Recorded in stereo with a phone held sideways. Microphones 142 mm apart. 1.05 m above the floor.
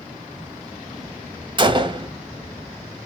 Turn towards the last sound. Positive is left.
turn(degrees=-30)  # may be behind; listen again after turning